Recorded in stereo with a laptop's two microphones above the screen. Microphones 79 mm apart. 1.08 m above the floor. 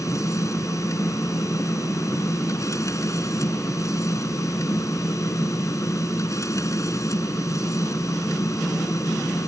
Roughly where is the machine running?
Left.